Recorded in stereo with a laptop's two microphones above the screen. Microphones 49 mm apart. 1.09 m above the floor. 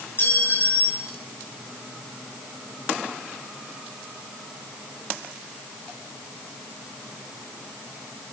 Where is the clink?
45° left (ahead or behind), 10 m.